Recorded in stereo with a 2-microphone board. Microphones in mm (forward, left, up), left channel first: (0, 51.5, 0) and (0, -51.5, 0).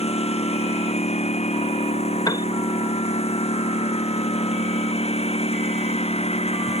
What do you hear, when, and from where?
0.0 s a lawn mower: 85° left
2.3 s a piano: 40° left (ahead or behind)